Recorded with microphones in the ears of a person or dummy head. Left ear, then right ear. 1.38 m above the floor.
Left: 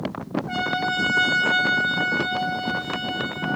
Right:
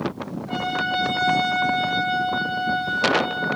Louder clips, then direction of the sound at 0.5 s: Right 1 dB; 40° left (ahead or behind).